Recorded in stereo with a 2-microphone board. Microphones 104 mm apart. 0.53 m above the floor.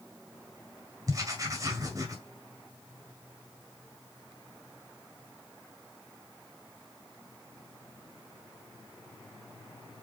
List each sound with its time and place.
1.1 s writing: 35° right (ahead or behind), 2.0 m